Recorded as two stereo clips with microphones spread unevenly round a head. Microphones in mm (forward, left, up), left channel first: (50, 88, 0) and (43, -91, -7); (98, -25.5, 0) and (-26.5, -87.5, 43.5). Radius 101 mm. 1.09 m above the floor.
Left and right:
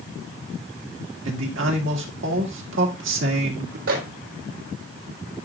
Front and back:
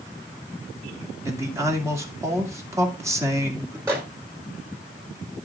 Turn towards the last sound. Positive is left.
turn(degrees=-80)